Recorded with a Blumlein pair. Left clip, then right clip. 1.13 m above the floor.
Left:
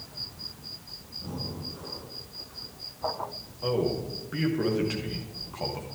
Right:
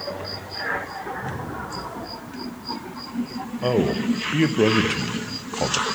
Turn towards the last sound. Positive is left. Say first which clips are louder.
# right 6 dB
turn(degrees=-30)